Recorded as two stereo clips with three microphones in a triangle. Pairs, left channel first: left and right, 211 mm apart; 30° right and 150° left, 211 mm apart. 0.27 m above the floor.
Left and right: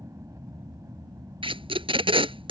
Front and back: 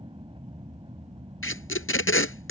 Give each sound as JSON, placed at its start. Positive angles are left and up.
{"t": 0.0, "sound": "an aircraft", "azimuth_deg": -155}
{"t": 1.4, "sound": "tape being pulled", "azimuth_deg": -25}